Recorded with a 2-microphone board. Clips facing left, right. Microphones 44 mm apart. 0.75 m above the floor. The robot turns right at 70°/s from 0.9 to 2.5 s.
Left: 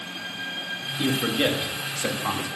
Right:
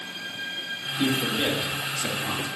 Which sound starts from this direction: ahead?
A man speaking, at 1.0 s.